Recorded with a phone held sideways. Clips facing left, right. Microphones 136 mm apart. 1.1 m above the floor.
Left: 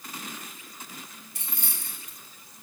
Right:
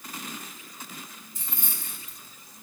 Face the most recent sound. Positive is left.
turn(degrees=75)  # may be behind; listen again after turning